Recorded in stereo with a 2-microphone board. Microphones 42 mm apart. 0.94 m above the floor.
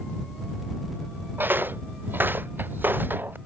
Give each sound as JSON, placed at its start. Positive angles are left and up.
{"t": 1.4, "sound": "footsteps", "side_deg": -50}